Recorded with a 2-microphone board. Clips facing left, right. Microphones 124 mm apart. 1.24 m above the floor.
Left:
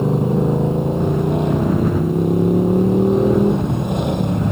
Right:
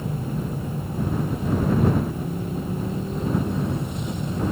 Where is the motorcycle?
80° left; by 4.5 s 70° left (ahead or behind).